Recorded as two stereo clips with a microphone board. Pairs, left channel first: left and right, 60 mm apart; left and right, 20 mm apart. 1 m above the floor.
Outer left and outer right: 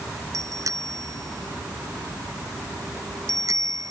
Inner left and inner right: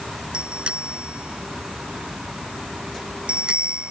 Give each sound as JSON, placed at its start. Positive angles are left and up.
{"t": 0.3, "sound": "a bicycle bell", "side_deg": -65}